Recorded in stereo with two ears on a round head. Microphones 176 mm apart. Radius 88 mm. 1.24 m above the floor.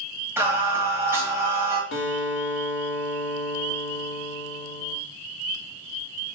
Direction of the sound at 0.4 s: 15° right (ahead or behind).